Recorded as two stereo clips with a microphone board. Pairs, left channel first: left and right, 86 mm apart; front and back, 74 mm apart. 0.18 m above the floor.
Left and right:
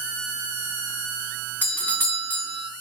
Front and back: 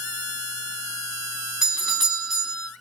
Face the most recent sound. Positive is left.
turn(degrees=110)